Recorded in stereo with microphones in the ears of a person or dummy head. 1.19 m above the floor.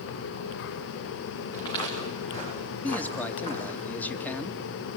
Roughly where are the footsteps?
Left.